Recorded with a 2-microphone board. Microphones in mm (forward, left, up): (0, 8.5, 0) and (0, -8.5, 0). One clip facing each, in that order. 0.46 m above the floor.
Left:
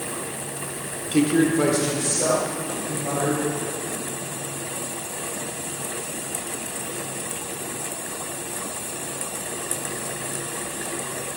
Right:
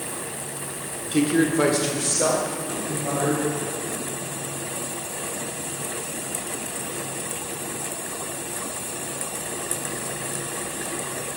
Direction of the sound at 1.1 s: 10° left (ahead or behind).